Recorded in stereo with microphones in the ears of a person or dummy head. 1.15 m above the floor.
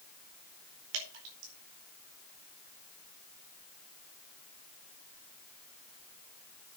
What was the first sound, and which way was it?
Dripping, 70° right (ahead or behind).